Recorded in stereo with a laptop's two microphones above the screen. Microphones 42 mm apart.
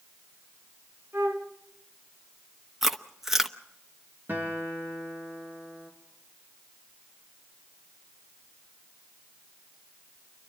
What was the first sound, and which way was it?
A flute, 70° right (ahead or behind).